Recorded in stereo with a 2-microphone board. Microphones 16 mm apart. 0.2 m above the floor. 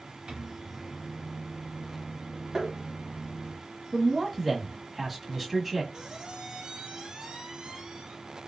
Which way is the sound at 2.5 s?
35° right (ahead or behind).